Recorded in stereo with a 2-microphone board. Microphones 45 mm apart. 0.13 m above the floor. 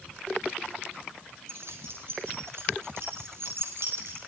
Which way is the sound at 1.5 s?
65° right (ahead or behind).